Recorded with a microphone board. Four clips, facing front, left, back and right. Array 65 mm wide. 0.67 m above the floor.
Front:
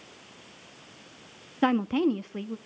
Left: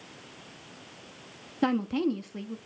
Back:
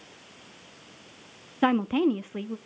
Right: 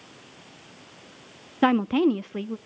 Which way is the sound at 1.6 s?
105° right.